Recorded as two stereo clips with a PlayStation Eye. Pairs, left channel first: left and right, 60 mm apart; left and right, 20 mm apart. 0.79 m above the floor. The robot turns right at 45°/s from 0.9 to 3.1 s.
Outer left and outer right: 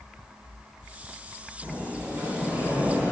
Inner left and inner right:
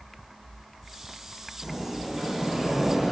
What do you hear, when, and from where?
1.6 s a sliding door: 95° right, 1.0 m; by 3.1 s 30° right, 1.0 m